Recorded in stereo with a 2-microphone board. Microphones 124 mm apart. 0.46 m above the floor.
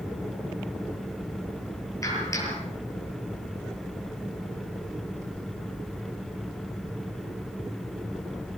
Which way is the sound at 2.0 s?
25° left (ahead or behind).